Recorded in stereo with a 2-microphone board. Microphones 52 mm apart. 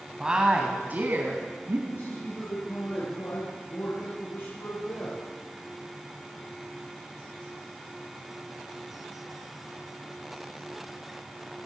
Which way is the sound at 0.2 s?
15° right (ahead or behind).